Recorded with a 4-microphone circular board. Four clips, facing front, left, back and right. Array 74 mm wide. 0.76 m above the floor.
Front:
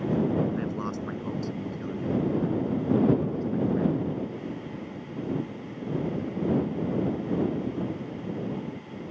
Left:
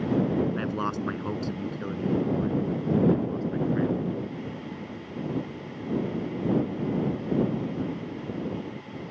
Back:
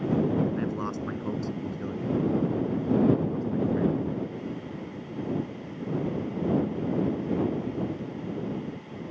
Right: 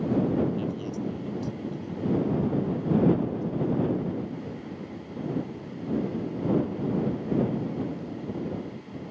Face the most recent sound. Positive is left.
turn(degrees=105)